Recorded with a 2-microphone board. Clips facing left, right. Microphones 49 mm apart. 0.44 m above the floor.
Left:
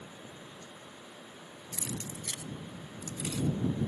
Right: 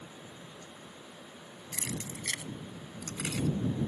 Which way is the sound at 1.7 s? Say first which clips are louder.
Right 1 dB; 75° right (ahead or behind).